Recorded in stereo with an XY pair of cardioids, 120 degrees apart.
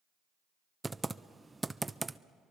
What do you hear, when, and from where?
0.8 s typing on a keyboard: 15° right, 0.5 m